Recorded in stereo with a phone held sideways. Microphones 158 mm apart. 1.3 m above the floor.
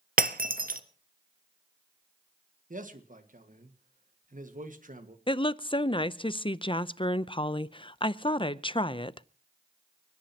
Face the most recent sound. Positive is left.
turn(degrees=30)  # may be behind; listen again after turning